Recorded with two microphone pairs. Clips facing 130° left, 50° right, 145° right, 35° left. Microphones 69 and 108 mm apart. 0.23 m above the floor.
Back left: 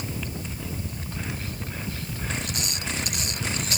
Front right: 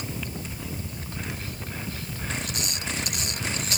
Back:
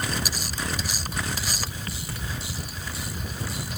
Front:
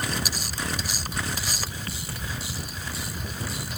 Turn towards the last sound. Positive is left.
No sound to turn to.